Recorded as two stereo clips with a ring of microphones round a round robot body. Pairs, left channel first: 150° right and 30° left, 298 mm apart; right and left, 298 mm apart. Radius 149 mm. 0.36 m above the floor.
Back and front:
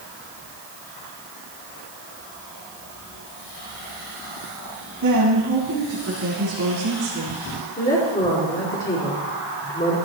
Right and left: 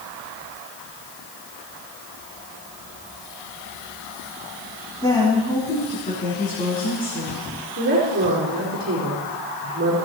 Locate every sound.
5.0 s a woman speaking: 15° right, 3 m; by 7.4 s 30° right, 4.5 m
7.8 s a woman speaking: 150° left, 4.5 m